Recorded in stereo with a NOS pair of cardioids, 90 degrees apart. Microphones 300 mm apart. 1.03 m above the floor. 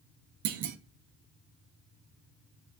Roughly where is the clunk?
Right.